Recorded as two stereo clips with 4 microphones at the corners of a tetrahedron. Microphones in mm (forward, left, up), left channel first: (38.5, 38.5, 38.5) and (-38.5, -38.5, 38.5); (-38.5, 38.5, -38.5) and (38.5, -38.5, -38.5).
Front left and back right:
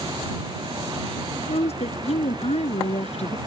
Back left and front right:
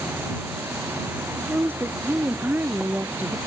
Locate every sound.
1.4 s a woman speaking: 25° left